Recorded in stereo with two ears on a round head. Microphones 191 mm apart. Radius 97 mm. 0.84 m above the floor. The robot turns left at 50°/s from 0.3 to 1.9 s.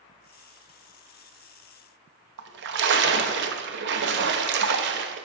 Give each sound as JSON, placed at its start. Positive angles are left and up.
{"t": 2.4, "sound": "a splash", "side_deg": -55, "distance_m": 0.9}